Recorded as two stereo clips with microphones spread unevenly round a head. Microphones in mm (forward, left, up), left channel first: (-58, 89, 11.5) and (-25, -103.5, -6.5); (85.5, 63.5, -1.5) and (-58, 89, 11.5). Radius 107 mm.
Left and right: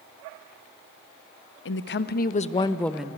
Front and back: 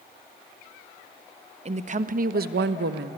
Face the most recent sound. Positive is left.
turn(degrees=-160)